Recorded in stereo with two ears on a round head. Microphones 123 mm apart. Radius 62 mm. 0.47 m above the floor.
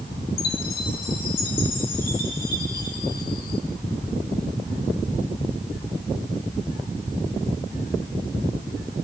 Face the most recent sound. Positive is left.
turn(degrees=75)  # may be behind; listen again after turning